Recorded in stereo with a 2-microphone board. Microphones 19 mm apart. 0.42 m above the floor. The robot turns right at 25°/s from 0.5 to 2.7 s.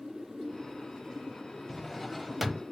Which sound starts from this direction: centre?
A drawer, at 1.7 s.